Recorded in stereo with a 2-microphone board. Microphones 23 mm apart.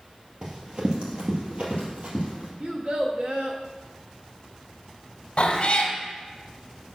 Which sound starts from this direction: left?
A cat meowing, at 5.4 s.